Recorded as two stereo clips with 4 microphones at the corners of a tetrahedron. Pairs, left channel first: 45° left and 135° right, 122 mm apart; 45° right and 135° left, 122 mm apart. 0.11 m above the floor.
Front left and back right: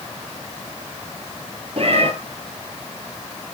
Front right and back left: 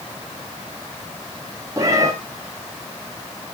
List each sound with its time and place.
1.8 s a cat meowing: 165° right, 1.5 m